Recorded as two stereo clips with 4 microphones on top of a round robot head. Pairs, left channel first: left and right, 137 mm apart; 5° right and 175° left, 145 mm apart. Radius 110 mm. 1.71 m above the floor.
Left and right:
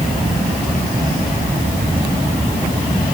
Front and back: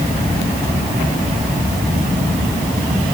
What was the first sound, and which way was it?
Only background noise.